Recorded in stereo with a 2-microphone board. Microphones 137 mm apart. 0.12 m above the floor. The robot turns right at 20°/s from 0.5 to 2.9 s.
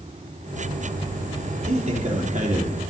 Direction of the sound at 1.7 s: 55° right (ahead or behind).